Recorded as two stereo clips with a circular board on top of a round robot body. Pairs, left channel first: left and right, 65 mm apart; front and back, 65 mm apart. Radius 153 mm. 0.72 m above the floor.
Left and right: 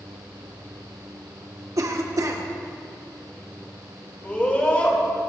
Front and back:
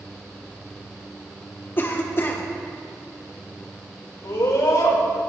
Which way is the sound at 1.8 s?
55° right.